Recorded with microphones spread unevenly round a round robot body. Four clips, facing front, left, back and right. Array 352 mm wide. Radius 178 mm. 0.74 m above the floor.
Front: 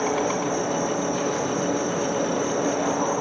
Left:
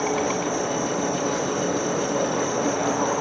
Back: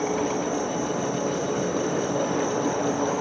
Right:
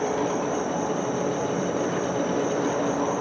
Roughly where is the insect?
Ahead left.